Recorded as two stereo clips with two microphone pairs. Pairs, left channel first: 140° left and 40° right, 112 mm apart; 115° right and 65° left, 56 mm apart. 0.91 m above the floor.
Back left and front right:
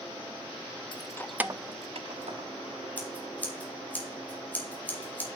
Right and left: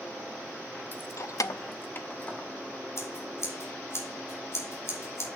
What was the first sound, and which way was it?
Keys jangling, 175° right.